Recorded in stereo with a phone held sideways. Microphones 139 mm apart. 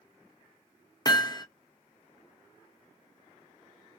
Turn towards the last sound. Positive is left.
turn(degrees=30)  # may be behind; listen again after turning